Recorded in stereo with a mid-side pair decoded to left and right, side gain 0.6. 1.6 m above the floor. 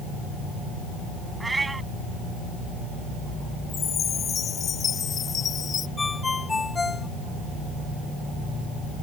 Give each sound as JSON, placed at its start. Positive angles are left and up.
{"t": 1.4, "sound": "a cat meowing", "azimuth_deg": -15}
{"t": 3.7, "sound": "a chime", "azimuth_deg": 40}
{"t": 6.0, "sound": "a ringtone", "azimuth_deg": 20}